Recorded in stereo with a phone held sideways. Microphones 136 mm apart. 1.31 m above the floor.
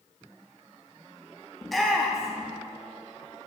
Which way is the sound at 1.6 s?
Centre (ahead or behind).